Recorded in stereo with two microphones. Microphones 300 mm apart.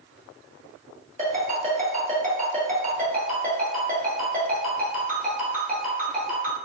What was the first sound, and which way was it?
A ringtone, 25° right (ahead or behind).